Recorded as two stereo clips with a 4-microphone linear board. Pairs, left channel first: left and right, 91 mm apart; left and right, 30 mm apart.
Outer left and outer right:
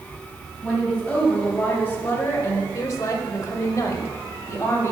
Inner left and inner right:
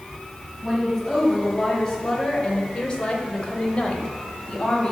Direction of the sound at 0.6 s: 10° left (ahead or behind).